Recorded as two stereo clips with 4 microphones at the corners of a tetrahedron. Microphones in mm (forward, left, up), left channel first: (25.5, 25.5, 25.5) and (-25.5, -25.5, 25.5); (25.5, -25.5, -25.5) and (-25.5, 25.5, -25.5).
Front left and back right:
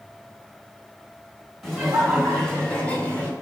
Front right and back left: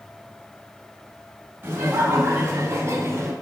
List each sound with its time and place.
1.6 s laughter: 140° left, 1.7 m; by 3.3 s 105° left, 2 m